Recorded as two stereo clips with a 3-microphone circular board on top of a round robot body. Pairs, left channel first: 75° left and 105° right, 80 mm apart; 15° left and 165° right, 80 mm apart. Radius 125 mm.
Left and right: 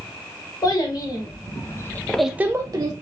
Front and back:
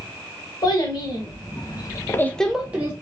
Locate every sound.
0.6 s a child speaking: 45° left, 1.4 m; by 2.9 s 110° right, 0.7 m